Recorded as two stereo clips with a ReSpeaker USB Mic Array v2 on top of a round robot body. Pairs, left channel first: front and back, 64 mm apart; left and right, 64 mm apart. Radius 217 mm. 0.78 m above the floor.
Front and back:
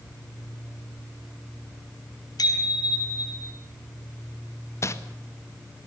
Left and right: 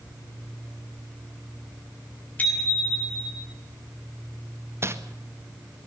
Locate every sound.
2.4 s a bicycle bell: 20° left, 6.5 m; by 3.5 s 30° left, 6 m
4.8 s crumpling: 40° right, 1.9 m